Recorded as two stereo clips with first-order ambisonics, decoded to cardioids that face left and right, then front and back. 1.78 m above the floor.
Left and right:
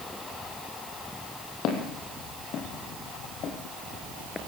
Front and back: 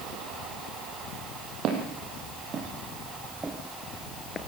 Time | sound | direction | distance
1.6 | footsteps | 135° left | 4 m